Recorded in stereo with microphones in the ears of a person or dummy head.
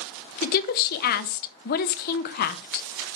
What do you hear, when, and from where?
0.4 s a woman speaking: 50° left (ahead or behind), 0.7 m